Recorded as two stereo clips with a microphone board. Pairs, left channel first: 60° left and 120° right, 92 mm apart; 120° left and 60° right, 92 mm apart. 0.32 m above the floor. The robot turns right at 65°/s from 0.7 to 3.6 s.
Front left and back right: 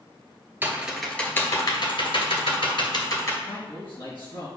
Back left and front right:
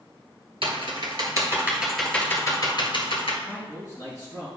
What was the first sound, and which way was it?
Typing on a keyboard, 50° right.